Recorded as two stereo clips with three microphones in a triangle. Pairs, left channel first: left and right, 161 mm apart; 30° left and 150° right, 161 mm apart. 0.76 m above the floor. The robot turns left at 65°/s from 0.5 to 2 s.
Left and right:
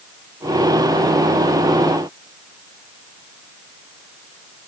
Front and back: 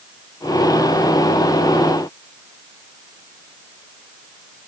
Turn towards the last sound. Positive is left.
No sound to turn to.